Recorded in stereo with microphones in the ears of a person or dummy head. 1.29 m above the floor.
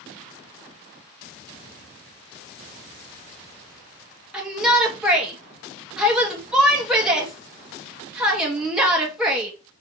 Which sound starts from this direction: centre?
A shout, at 4.3 s.